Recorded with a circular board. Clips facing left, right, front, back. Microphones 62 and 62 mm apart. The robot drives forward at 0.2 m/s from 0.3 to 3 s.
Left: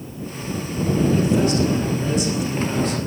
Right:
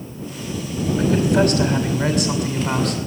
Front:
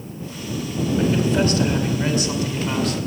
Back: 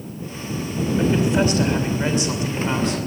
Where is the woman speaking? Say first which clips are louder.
Right 2 dB, back 1 dB; 110° right, 5 m; by 3.0 s 115° right, 5.5 m.